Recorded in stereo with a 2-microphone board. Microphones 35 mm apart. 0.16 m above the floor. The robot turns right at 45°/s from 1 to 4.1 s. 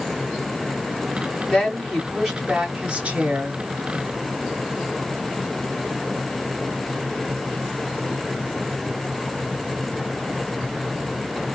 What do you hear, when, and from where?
1.5 s a woman speaking: 155° left, 2.5 m; by 3.6 s 110° right, 2.5 m